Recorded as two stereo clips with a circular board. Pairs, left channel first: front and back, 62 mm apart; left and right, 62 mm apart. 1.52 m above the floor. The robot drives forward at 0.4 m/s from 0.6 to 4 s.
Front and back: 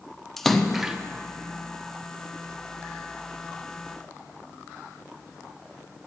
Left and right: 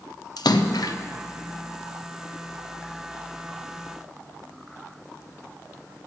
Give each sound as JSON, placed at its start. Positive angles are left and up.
{"t": 0.4, "sound": "a splash", "azimuth_deg": 85, "distance_m": 0.5}